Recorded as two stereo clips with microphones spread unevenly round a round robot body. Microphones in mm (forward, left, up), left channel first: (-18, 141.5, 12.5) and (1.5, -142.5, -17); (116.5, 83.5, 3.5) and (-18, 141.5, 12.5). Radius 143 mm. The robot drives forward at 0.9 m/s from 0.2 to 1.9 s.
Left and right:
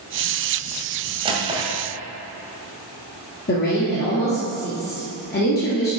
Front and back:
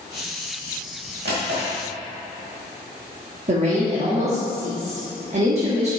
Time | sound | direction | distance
1.2 | a drawer | 160° right | 1.7 m
3.5 | a woman speaking | 145° left | 1.5 m